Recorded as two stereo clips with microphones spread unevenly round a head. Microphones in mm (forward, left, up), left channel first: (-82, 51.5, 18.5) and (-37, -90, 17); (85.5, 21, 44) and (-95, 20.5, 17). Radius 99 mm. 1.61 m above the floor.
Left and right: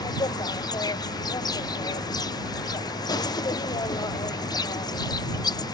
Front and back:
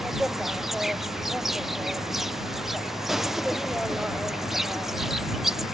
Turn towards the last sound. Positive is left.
turn(degrees=115)